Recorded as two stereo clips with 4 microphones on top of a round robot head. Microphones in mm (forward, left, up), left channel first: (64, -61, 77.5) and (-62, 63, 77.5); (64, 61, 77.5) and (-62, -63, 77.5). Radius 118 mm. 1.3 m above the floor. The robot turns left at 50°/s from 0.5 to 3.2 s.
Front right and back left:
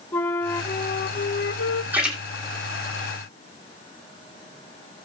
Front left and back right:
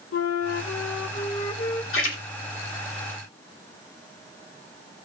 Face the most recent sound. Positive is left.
turn(degrees=-10)